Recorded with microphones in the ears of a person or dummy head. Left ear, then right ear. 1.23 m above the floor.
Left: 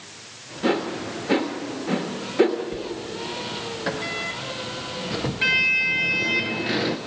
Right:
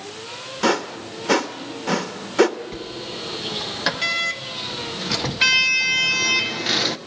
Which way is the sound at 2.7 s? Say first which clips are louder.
Even; 35° right (ahead or behind).